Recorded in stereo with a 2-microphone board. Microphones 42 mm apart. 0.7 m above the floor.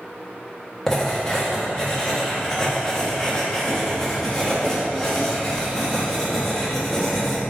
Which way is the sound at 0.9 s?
10° left (ahead or behind).